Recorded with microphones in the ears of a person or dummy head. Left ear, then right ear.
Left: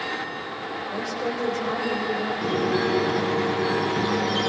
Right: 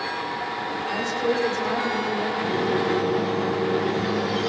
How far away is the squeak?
About 4 m.